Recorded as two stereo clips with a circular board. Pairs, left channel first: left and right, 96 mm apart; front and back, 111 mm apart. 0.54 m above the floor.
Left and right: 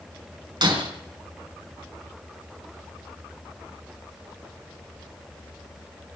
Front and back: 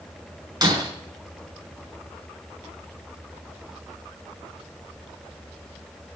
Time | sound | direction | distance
0.6 | breaking glass | 130° right | 3.5 m